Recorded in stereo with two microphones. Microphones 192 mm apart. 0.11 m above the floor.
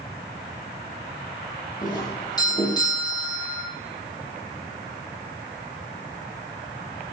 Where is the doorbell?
20° left (ahead or behind), 4.5 m.